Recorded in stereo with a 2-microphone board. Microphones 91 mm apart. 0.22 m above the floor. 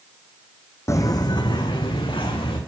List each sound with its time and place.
0.9 s footsteps: 30° left (ahead or behind), 0.6 m; by 2.6 s 65° left (ahead or behind), 2 m